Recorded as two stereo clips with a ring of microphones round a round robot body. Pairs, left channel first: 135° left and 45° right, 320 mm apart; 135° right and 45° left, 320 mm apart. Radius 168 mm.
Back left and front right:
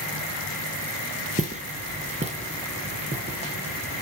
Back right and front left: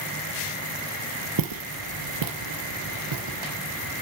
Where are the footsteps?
20° left, 0.9 m; by 3.9 s 25° left, 2.5 m.